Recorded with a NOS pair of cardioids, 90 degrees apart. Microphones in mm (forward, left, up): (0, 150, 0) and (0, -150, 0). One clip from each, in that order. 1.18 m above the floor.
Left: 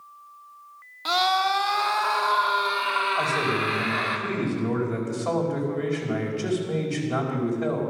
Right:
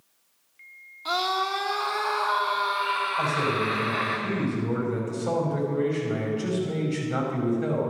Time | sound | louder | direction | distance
1.1 | a scream | left 4 dB | 65° left | 1.9 m
3.2 | a man speaking | left 1 dB | 65° left | 5.5 m